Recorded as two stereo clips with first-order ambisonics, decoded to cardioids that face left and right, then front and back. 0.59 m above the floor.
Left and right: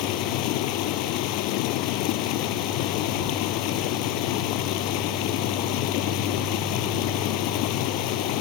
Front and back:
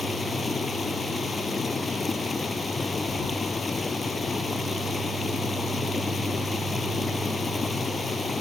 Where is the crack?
No crack in this recording.